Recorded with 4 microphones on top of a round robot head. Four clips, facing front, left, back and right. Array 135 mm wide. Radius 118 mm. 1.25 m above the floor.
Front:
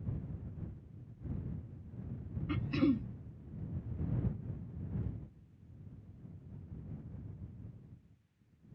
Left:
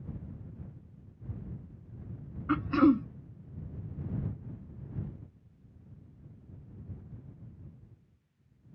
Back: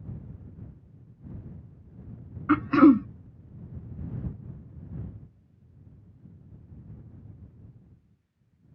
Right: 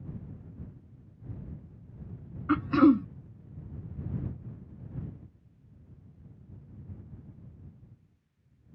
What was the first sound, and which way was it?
Throat clearing, 170° right.